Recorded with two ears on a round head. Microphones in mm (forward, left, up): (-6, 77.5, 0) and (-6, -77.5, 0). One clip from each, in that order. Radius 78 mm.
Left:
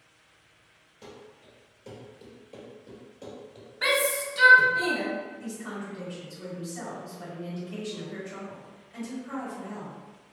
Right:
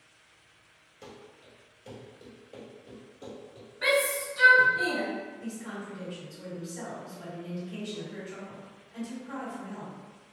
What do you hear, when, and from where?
1.0 s running footsteps: 15° right (ahead or behind), 1.5 m; by 3.7 s 35° left (ahead or behind), 1.7 m
3.8 s a shout: 30° left (ahead or behind), 0.6 m
5.4 s a woman speaking: 40° left (ahead or behind), 1.3 m